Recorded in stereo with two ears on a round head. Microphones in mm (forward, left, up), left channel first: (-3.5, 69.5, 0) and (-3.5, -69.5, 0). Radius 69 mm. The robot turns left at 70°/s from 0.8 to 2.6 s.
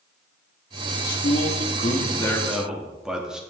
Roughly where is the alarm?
No alarm in this recording.